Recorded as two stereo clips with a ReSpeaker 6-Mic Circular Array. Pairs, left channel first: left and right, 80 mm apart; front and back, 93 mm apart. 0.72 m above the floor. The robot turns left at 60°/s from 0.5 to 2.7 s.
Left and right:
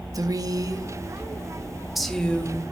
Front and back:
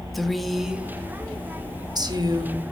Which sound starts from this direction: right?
A woman speaking, at 0.1 s.